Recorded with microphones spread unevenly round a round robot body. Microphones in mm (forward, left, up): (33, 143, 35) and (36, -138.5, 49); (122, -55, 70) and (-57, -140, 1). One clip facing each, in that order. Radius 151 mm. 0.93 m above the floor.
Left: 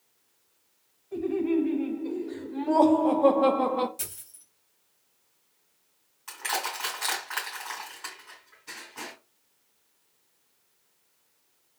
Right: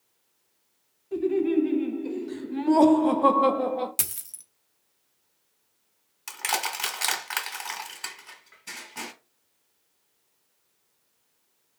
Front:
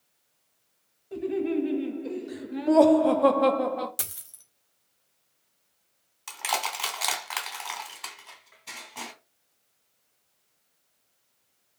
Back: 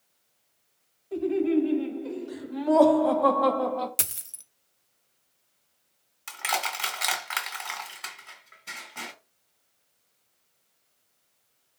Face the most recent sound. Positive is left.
turn(degrees=-60)